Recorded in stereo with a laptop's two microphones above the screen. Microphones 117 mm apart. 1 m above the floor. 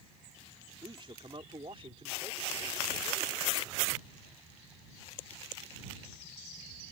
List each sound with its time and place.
0.8 s a man speaking: 45° right (ahead or behind); by 3.6 s 55° right (ahead or behind)